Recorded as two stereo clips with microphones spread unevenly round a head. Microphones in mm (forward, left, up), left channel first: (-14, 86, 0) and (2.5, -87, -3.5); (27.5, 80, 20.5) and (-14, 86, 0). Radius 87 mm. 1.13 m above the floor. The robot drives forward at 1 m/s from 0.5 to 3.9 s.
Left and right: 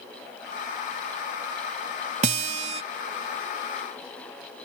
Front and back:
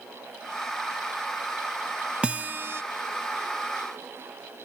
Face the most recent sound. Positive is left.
turn(degrees=-155)